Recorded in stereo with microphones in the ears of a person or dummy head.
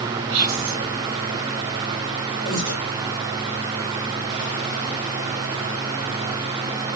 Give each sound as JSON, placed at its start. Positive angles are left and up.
{"t": 0.3, "sound": "whispering", "side_deg": -45, "distance_m": 0.7}
{"t": 2.5, "sound": "breathing", "side_deg": -45, "distance_m": 1.5}